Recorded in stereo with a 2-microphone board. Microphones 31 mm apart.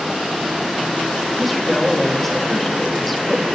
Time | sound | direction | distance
1.4 | a woman speaking | 5° left (ahead or behind) | 1.3 m